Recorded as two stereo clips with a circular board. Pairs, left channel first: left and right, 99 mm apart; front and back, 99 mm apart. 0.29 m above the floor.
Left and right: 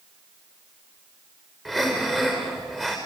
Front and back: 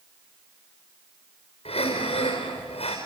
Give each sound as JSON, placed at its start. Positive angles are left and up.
{"t": 1.6, "sound": "breathing", "azimuth_deg": -5, "distance_m": 5.5}